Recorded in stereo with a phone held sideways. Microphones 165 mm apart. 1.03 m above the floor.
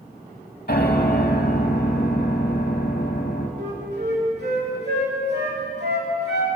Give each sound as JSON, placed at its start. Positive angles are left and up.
{"t": 0.7, "sound": "a piano", "side_deg": 65, "distance_m": 1.8}
{"t": 3.6, "sound": "a flute", "side_deg": -75, "distance_m": 3.0}